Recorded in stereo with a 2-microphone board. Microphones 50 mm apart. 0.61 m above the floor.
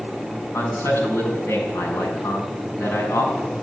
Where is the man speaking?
55° left (ahead or behind), 5 m.